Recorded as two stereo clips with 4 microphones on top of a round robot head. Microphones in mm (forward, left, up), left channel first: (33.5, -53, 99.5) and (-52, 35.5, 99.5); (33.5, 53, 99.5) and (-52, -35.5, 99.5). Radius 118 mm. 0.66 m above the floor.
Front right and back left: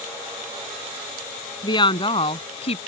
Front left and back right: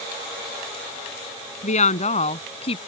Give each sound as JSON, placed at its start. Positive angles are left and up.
{"t": 1.6, "sound": "a woman speaking", "azimuth_deg": 10}